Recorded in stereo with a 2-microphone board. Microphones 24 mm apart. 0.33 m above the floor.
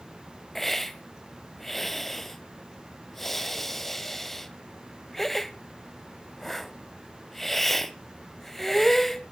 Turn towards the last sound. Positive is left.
turn(degrees=10)  # may be behind; listen again after turning